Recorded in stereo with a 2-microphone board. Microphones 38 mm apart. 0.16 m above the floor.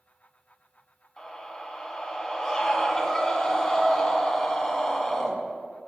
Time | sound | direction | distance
1.2 | a scream | 10° left (ahead or behind) | 1.3 m